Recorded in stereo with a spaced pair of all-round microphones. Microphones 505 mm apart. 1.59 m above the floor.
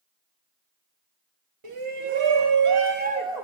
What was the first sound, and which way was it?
A shout, 80° right.